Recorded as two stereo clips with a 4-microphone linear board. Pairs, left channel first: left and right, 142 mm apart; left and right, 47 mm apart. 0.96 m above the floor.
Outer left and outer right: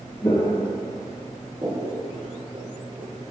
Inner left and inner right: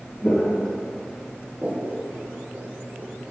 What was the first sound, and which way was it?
Footsteps, 25° left (ahead or behind).